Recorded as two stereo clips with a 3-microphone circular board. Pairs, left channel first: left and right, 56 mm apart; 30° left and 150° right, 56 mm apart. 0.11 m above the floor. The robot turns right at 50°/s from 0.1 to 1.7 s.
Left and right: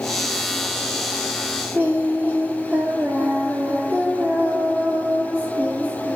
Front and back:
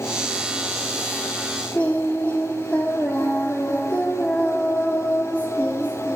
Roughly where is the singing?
Ahead right.